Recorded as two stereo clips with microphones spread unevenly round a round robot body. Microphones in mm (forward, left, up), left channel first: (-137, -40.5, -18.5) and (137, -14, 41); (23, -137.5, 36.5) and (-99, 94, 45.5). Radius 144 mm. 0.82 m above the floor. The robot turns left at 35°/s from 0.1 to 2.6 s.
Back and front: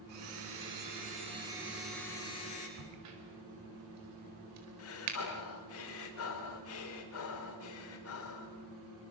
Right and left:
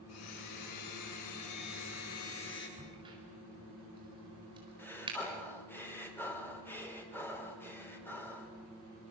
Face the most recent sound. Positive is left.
turn(degrees=-145)